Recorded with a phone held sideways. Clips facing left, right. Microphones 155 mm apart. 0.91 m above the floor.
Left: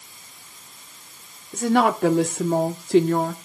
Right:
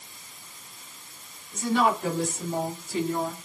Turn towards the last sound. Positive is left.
turn(degrees=65)  # may be behind; listen again after turning